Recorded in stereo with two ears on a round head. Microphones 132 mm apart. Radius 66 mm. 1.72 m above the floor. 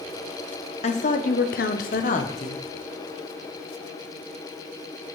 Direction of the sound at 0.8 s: 45° left (ahead or behind).